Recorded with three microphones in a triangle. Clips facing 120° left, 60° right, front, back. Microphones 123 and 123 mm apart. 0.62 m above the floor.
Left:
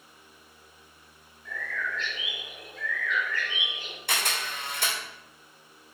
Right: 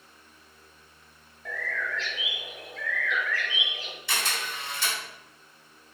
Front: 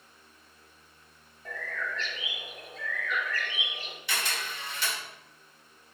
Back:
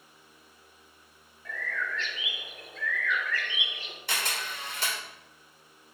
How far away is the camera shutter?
About 2.5 m.